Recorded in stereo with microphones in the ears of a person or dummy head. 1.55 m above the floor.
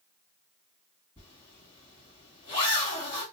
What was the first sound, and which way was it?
A zipper, 25° left (ahead or behind).